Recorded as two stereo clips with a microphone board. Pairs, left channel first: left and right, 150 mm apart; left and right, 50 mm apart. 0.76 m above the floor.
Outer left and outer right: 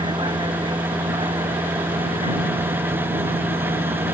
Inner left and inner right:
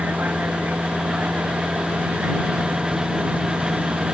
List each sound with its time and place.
0.0 s a vehicle: 35° right (ahead or behind); by 4.1 s 40° right (ahead or behind)